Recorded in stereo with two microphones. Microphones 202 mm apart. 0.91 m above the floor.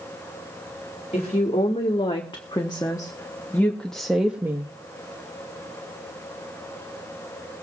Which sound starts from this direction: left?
A woman speaking, at 1.1 s.